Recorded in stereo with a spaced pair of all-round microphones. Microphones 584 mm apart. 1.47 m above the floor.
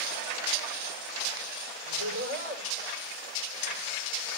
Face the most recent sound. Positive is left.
turn(degrees=70)  # may be behind; listen again after turning